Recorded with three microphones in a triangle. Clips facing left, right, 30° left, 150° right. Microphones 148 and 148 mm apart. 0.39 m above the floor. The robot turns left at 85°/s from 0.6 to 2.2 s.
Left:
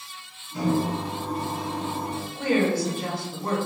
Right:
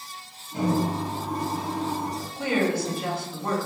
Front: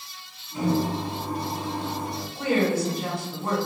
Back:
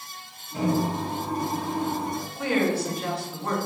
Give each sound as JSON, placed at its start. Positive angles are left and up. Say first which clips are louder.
{"t": 0.5, "sound": "a microwave", "louder": "even, even", "azimuth_deg": -120, "distance_m": 1.7}
{"t": 2.4, "sound": "a woman speaking", "louder": "left 2 dB, front 2 dB", "azimuth_deg": 85, "distance_m": 1.7}